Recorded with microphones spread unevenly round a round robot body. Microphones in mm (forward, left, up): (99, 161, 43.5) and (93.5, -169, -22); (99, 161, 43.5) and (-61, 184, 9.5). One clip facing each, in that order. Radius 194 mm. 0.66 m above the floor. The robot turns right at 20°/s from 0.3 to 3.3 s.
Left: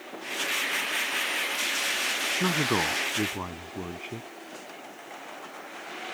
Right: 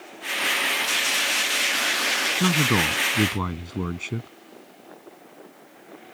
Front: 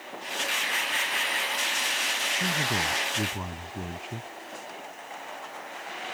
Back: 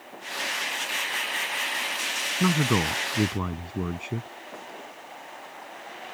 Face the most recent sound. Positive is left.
turn(degrees=-135)